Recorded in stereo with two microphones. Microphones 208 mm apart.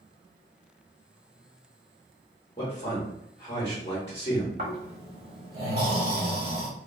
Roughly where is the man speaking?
Left.